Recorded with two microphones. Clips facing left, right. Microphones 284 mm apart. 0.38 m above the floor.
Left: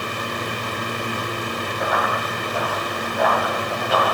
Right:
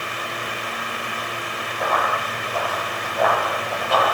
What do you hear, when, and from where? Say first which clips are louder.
1.8 s running footsteps: right 1 dB; 5° left (ahead or behind), 9 m; by 4.2 s centre (ahead or behind), 11 m